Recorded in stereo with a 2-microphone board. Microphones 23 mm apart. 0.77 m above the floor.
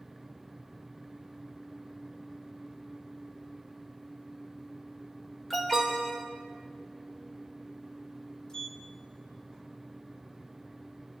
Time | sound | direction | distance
5.5 | an alarm | 10° left (ahead or behind) | 4 m
8.5 | a sliding door | 35° left (ahead or behind) | 2.5 m